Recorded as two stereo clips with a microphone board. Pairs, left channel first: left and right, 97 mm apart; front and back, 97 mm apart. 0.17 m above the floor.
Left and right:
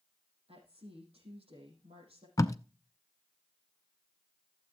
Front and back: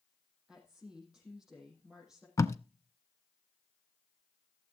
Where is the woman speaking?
95° right, 5.5 m.